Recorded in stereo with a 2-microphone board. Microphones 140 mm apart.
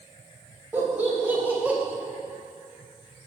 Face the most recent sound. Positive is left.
turn(degrees=-10)  # may be behind; listen again after turning